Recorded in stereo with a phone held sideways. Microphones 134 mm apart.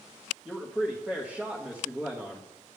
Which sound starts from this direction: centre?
A man speaking, at 0.5 s.